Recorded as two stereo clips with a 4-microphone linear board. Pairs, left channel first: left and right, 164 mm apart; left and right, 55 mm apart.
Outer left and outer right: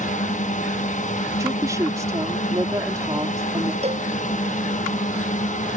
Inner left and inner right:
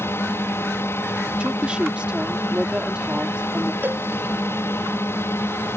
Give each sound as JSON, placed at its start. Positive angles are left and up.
{"t": 0.0, "sound": "a drone", "side_deg": 50}
{"t": 1.4, "sound": "a woman speaking", "side_deg": -20}
{"t": 3.8, "sound": "a cowbell", "side_deg": -40}